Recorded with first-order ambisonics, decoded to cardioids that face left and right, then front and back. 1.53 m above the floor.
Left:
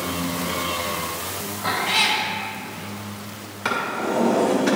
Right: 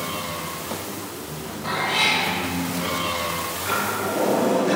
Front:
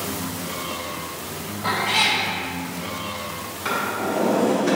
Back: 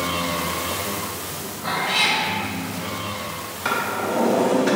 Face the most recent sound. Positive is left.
turn(degrees=105)